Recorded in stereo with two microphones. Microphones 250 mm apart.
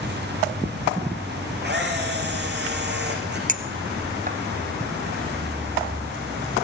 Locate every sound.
1.6 s a camera shutter: 40° right (ahead or behind), 6 m
3.5 s a clink: 30° right (ahead or behind), 1.3 m